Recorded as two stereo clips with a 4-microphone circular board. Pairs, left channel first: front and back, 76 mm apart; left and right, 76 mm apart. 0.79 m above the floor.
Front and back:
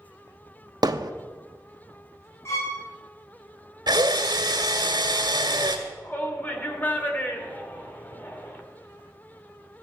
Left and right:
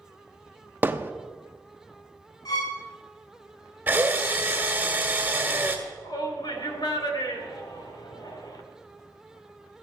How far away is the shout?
About 2.5 m.